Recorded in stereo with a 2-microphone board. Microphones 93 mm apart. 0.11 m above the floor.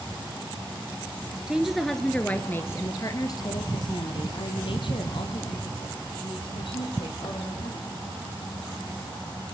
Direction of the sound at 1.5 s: 10° right (ahead or behind).